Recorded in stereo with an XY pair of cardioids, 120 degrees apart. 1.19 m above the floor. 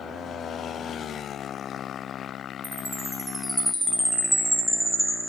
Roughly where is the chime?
Ahead.